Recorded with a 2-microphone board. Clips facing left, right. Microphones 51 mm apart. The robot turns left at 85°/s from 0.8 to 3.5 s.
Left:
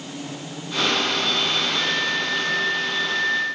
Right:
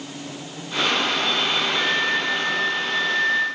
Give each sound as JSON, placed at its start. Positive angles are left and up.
{"t": 1.8, "sound": "a flute", "azimuth_deg": -30, "distance_m": 7.5}